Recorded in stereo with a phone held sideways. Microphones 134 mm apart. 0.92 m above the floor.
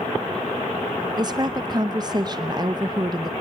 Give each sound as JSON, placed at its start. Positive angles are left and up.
{"t": 1.2, "sound": "a woman speaking", "side_deg": -30, "distance_m": 0.7}